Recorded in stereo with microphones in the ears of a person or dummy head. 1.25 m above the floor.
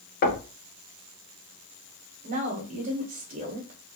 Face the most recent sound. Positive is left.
turn(degrees=-35)  # may be behind; listen again after turning